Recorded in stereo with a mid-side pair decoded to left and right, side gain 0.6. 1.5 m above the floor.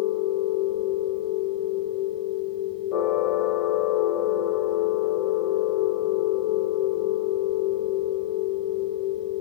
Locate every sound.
0.0 s a machine running: 70° left, 0.9 m